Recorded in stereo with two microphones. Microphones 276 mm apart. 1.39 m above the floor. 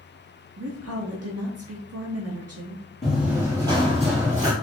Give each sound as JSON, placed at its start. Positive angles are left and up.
{"t": 0.6, "sound": "a woman speaking", "side_deg": -60, "distance_m": 0.5}
{"t": 3.0, "sound": "running footsteps", "side_deg": 0, "distance_m": 1.6}